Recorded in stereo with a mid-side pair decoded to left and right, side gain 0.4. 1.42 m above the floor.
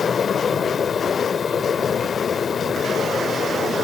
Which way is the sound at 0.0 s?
50° left.